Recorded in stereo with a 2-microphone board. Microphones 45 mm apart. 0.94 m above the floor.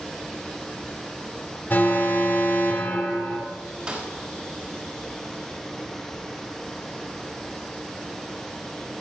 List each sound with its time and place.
1.7 s an alarm: 50° left (ahead or behind), 2.0 m
3.9 s a snare drum: 25° right (ahead or behind), 3.5 m